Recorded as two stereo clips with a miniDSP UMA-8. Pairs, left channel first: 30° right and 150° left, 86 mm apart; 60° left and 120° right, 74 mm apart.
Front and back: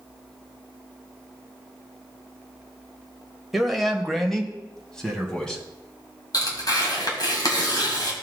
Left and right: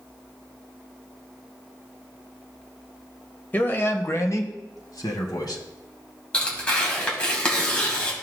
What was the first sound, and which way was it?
A man speaking, 70° left.